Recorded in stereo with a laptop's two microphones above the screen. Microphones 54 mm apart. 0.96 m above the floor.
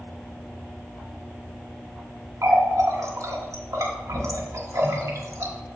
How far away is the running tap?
About 1.3 m.